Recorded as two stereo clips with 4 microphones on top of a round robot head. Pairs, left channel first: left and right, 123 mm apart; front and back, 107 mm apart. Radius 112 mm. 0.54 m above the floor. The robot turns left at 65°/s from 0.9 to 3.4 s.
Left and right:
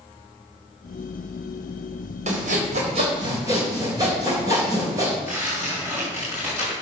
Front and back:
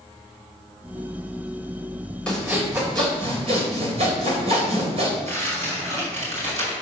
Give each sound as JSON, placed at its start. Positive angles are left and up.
{"t": 2.3, "sound": "sawing", "azimuth_deg": -80, "distance_m": 3.5}
{"t": 5.2, "sound": "tearing paper", "azimuth_deg": -165, "distance_m": 5.0}